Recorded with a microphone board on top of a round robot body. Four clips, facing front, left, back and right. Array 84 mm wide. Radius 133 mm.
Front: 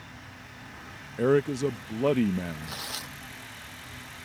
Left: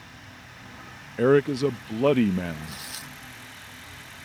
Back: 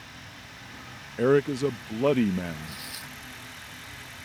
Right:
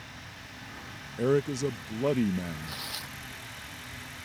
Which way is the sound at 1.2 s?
105° left.